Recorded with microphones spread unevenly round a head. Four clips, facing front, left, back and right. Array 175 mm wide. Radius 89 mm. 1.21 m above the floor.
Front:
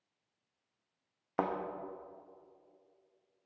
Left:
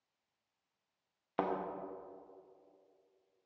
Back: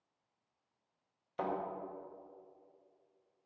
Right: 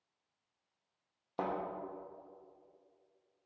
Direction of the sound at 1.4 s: 20° left.